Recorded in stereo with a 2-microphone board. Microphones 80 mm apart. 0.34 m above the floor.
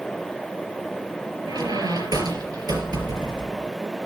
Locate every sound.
1.5 s a squeak: 55° right (ahead or behind), 4 m